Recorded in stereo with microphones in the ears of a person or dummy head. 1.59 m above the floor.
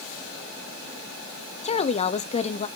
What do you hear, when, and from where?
1.6 s a woman speaking: 30° left (ahead or behind), 0.7 m